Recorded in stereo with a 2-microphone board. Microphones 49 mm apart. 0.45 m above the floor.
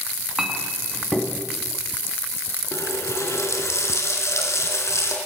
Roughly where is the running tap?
Left.